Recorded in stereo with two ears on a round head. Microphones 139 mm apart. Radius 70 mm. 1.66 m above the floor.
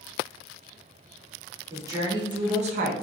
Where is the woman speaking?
20° right (ahead or behind), 1.7 m; by 3.0 s 70° right (ahead or behind), 0.7 m.